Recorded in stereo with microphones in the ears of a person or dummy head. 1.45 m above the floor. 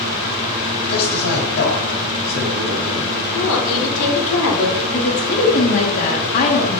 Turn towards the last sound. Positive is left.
turn(degrees=45)  # may be behind; listen again after turning